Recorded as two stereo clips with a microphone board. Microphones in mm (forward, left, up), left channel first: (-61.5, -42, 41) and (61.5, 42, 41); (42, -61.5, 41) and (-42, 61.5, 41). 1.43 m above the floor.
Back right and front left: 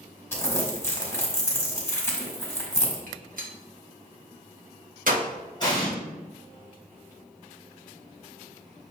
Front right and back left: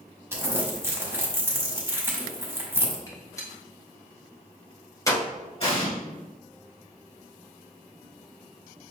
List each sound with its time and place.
0.3 s crumpling: 170° left, 1.3 m
3.1 s a gunshot: 10° left, 1.1 m
5.6 s an explosion: 95° right, 1.9 m